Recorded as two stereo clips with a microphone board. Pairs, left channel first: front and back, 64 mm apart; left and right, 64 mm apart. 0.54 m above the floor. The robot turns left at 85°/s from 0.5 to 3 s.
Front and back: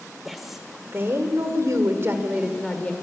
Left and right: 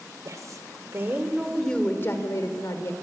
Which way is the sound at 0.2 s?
90° right.